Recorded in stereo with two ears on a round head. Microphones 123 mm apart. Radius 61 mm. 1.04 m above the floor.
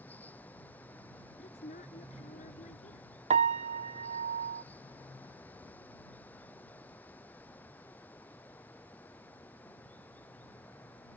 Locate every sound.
0.0 s running water: 10° left (ahead or behind)
1.4 s a woman speaking: 50° left (ahead or behind)
3.3 s a piano: 45° right (ahead or behind)